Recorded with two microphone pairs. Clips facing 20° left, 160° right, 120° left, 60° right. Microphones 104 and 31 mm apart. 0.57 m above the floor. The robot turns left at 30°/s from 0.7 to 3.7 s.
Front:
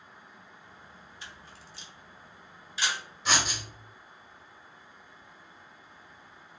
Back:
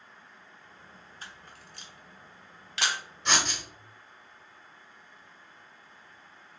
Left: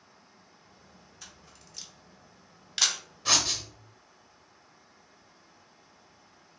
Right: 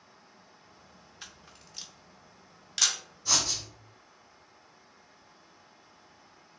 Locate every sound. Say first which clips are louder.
1.2 s a camera shutter: back 1 dB, right 3 dB; 110° right, 0.6 m; by 3.0 s 165° right, 0.6 m
3.2 s writing: even, left 3 dB; 105° left, 0.7 m; by 3.6 s 95° left, 0.7 m